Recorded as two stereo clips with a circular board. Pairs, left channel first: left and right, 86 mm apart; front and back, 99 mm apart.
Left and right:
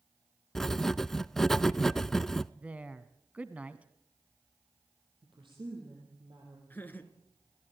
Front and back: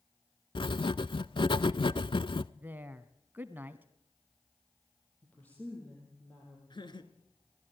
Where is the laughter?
25° left, 2.5 m.